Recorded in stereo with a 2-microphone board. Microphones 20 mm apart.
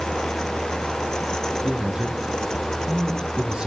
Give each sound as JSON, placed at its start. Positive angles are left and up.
{"t": 1.6, "sound": "a man speaking", "side_deg": -45, "distance_m": 2.5}